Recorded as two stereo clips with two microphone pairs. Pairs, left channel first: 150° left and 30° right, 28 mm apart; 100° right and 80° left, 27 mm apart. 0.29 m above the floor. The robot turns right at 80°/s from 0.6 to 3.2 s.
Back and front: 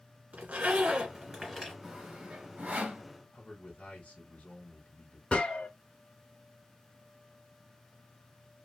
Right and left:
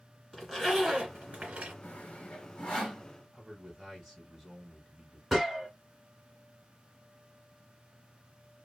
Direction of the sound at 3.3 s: 175° left.